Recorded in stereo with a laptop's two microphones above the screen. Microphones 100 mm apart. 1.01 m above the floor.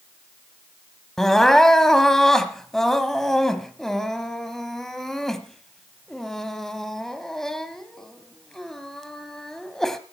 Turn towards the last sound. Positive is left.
turn(degrees=5)  # may be behind; listen again after turning